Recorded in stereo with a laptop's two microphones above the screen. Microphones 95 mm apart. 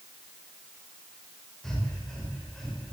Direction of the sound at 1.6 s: 5° left (ahead or behind).